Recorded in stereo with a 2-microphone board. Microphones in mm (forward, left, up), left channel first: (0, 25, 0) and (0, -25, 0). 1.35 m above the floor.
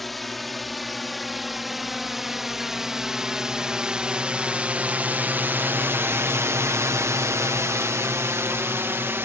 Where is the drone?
Centre (ahead or behind); by 9.3 s 50° right (ahead or behind).